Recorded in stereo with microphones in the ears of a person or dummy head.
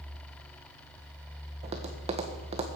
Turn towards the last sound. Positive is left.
turn(degrees=-30)  # may be behind; listen again after turning